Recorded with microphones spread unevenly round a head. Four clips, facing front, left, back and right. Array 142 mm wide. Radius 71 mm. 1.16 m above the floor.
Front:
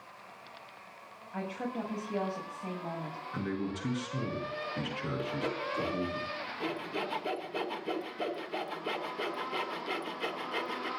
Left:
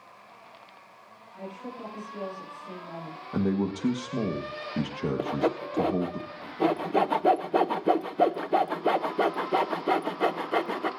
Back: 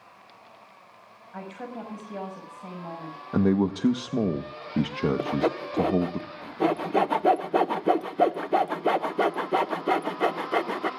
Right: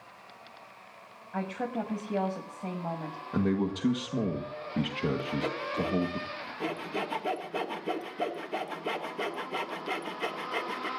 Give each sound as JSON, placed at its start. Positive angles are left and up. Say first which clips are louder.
{"t": 1.3, "sound": "a woman speaking", "louder": "right 7 dB, front 1 dB", "azimuth_deg": -90, "distance_m": 7.5}
{"t": 3.3, "sound": "a man speaking", "louder": "left 1 dB, back 13 dB", "azimuth_deg": 175, "distance_m": 1.4}
{"t": 5.2, "sound": "sawing", "louder": "left 5 dB, back 8 dB", "azimuth_deg": 145, "distance_m": 0.9}